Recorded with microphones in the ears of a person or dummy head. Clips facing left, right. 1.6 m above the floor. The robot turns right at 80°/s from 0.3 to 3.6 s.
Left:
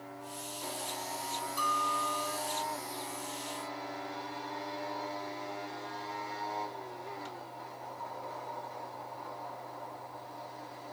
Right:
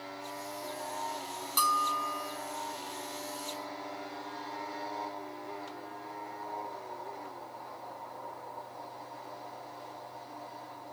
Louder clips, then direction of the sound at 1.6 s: Right 2 dB; 75° right.